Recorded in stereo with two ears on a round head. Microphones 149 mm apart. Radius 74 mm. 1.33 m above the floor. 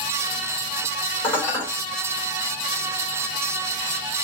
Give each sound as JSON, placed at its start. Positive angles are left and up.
{"t": 1.2, "sound": "dishes clattering", "side_deg": 10, "distance_m": 2.5}